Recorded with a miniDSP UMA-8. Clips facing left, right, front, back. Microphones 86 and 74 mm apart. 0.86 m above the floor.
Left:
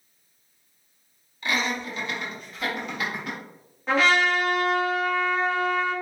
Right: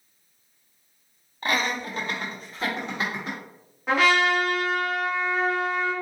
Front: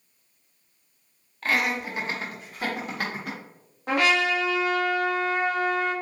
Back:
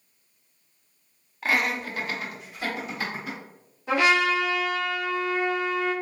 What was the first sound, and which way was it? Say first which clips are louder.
Laughter: right 1 dB, even; 100° right.